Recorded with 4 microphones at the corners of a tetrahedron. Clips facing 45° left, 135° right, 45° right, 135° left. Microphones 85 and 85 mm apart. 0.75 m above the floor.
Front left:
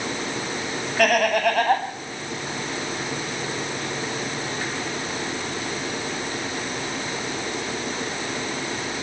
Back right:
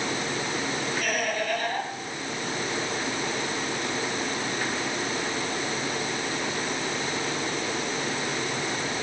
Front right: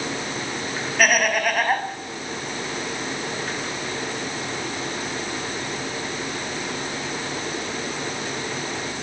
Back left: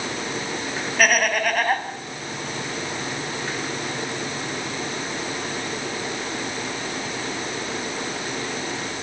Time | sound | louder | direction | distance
1.0 | laughter | front left 14 dB, even | 45° left | 4.5 m